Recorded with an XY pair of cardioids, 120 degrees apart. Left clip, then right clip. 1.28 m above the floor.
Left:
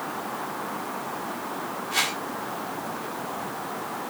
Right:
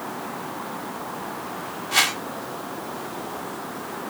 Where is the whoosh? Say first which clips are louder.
Right 5 dB; 35° right, 1.2 m.